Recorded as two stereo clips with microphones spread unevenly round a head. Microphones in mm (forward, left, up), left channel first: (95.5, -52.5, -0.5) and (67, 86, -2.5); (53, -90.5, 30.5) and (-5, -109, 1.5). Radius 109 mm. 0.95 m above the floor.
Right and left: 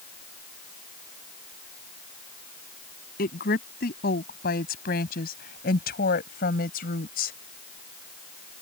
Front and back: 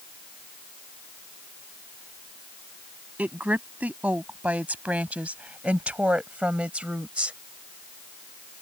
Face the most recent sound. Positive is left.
turn(degrees=-90)